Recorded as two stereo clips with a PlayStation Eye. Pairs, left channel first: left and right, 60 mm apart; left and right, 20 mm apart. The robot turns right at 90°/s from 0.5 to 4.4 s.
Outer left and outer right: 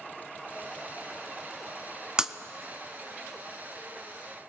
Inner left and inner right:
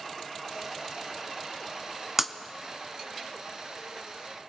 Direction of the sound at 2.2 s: 15° right (ahead or behind).